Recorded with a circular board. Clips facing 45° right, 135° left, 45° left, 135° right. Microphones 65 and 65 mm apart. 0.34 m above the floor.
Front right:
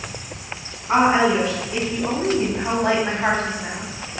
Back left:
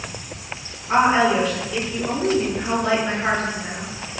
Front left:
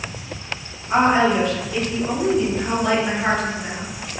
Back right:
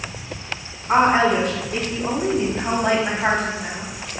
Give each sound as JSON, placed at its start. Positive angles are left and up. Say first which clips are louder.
{"t": 0.9, "sound": "a woman speaking", "louder": "even, back right 1 dB", "azimuth_deg": -105, "distance_m": 3.0}